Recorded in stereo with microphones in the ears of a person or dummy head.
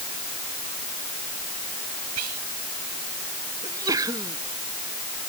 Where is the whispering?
85° right.